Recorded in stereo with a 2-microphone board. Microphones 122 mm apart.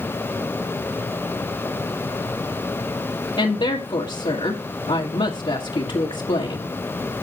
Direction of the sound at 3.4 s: 50° left (ahead or behind).